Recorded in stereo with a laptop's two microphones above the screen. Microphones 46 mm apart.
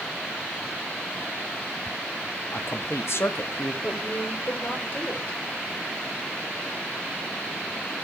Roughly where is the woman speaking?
Left.